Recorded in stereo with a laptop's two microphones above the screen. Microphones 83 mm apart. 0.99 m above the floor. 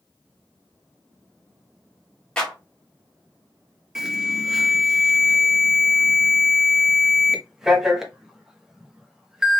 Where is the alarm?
5° right (ahead or behind), 1.0 m.